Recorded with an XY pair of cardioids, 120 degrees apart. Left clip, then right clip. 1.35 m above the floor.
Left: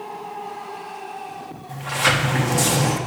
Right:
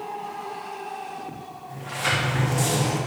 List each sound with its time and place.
1.7 s a sliding door: 45° left, 1.3 m